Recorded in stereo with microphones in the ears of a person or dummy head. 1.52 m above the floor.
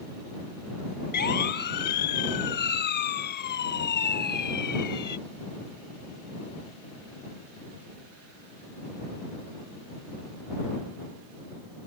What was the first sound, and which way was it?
A siren, 50° left (ahead or behind).